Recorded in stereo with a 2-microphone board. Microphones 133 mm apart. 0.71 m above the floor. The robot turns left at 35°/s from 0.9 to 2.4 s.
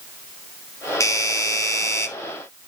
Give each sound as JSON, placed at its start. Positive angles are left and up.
{"t": 1.0, "sound": "a doorbell", "side_deg": 25, "distance_m": 1.3}